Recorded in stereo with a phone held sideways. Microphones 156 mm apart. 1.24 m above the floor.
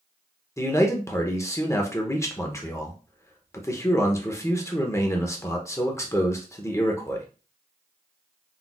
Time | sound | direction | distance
0.6 | a man speaking | 20° left (ahead or behind) | 0.6 m